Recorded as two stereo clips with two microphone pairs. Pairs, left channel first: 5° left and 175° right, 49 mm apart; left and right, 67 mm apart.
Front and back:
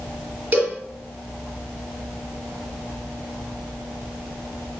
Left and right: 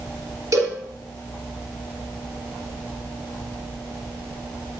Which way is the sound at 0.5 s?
120° right.